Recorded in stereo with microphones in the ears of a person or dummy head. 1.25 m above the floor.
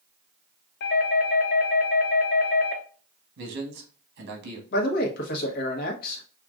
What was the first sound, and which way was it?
A doorbell, 50° left (ahead or behind).